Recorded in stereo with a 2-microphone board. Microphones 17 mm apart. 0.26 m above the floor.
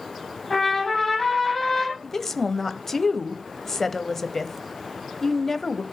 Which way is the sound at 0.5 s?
15° left (ahead or behind).